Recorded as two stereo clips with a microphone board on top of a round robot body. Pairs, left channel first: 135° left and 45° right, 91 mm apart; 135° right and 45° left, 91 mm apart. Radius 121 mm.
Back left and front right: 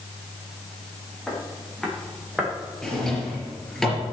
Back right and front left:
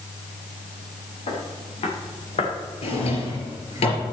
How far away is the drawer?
About 3.5 m.